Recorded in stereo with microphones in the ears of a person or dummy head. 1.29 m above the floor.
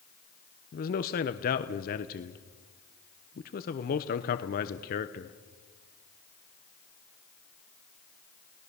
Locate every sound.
0.7 s a man speaking: 50° left (ahead or behind), 1.0 m